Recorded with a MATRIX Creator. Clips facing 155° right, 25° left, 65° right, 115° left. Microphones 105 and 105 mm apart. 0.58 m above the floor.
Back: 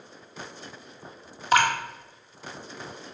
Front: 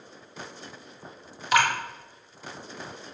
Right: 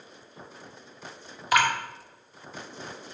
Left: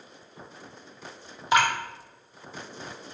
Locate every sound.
1.5 s dripping: 170° left, 1.5 m